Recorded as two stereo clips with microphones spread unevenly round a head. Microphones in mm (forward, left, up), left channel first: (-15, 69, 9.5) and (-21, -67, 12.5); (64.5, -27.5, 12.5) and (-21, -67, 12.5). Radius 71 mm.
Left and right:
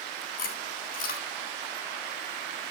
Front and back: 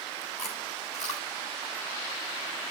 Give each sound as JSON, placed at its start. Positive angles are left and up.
{"t": 0.4, "sound": "chewing", "azimuth_deg": 110, "distance_m": 3.5}